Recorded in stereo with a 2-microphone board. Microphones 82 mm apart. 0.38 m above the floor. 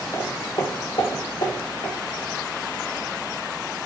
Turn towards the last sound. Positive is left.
turn(degrees=80)